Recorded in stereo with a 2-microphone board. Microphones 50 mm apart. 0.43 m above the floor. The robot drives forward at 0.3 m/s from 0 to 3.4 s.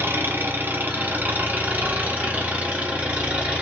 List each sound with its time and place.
0.0 s an engine running: 50° right (ahead or behind), 1.0 m; by 3.6 s 25° right (ahead or behind), 1.9 m